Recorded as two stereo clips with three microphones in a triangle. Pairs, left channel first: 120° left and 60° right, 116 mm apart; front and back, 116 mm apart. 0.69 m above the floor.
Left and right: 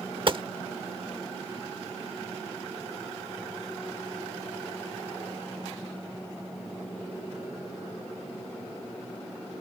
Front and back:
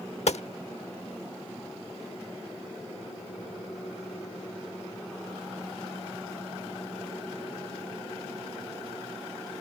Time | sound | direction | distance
0.3 | a gunshot | 20° right | ?